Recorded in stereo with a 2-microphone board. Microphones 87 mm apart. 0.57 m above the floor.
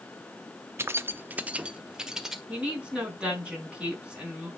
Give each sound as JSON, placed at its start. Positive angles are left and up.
{"t": 0.8, "sound": "keys jangling", "side_deg": -25, "distance_m": 0.6}
{"t": 2.5, "sound": "a woman speaking", "side_deg": -10, "distance_m": 4.5}